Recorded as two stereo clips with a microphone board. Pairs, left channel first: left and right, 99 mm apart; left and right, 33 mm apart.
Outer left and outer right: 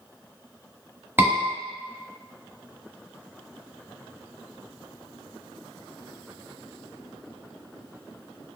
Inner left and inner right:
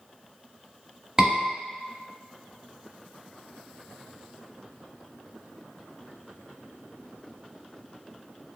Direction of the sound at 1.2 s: 20° right (ahead or behind).